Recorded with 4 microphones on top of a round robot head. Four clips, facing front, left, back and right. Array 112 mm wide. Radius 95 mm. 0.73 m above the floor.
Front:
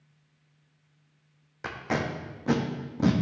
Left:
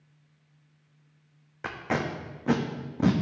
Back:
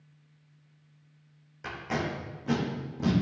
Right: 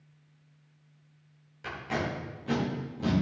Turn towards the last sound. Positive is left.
turn(degrees=55)